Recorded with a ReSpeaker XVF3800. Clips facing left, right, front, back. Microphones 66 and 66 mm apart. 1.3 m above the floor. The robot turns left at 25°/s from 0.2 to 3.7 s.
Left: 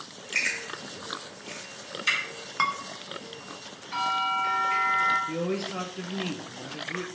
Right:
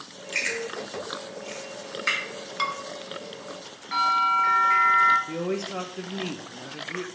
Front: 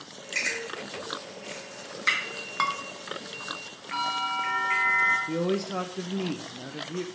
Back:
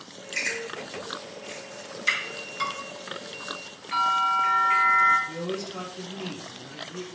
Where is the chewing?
5° left, 2.5 m; by 2.2 s 45° right, 2.5 m.